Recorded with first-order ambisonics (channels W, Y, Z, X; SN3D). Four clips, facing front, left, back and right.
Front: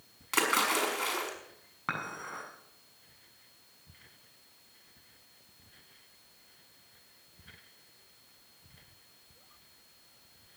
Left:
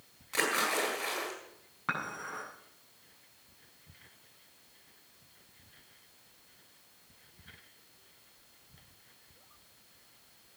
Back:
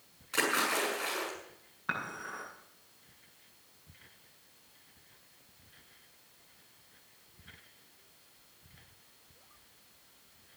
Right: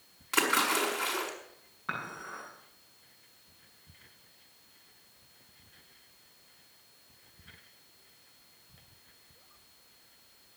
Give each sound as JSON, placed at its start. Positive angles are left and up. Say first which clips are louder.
{"t": 0.3, "sound": "a splash", "louder": "right 3 dB, front 2 dB", "azimuth_deg": -30, "distance_m": 6.0}
{"t": 1.9, "sound": "dishes clattering", "louder": "left 2 dB, even", "azimuth_deg": 30, "distance_m": 7.0}